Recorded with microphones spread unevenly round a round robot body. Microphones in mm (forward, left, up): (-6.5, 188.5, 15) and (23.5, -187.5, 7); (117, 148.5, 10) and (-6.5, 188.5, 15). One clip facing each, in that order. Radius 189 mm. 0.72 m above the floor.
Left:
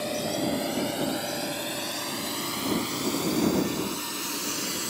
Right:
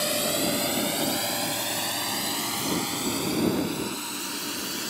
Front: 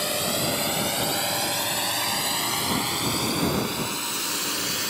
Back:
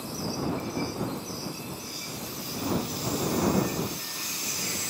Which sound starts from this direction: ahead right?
A drone, at 0.0 s.